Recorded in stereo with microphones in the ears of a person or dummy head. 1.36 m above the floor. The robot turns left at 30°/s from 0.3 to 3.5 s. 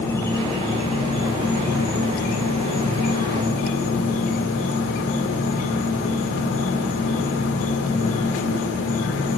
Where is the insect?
165° left, 2.5 m; by 9.4 s 70° left, 2.5 m.